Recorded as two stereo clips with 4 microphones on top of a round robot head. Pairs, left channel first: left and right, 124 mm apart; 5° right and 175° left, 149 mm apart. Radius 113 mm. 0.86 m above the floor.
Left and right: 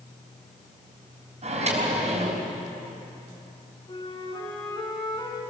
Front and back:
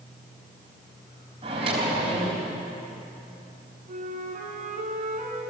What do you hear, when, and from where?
1.4 s a microwave: 120° right, 4 m
3.9 s a flute: 140° left, 3.5 m